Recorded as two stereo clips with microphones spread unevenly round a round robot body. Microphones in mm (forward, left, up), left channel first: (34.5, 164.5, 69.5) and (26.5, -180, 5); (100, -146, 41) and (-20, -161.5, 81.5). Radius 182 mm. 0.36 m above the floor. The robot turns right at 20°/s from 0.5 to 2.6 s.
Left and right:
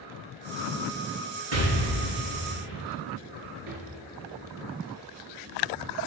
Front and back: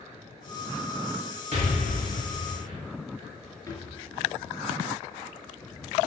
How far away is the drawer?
About 2.5 m.